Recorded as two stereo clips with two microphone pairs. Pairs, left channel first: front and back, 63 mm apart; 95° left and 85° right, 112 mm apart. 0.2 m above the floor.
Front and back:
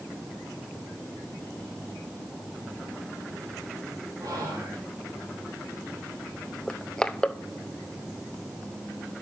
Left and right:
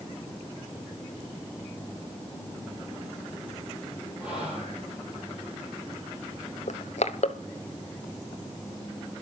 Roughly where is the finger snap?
I don't hear a finger snap.